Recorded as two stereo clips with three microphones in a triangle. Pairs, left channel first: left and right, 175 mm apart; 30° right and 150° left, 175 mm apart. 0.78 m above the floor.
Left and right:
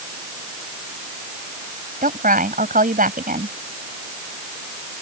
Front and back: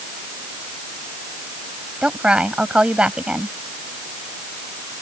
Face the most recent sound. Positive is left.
turn(degrees=-125)